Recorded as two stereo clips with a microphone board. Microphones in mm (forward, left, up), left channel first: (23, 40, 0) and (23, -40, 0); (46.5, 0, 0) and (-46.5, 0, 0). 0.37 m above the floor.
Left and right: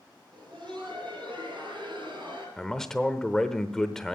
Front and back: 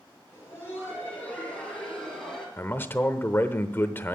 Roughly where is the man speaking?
Ahead.